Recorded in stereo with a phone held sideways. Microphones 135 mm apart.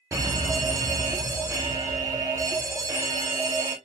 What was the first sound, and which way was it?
A fire alarm, 25° right (ahead or behind).